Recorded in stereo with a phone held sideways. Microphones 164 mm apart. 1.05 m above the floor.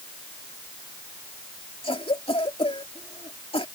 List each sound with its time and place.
1.8 s a cough: 35° left (ahead or behind)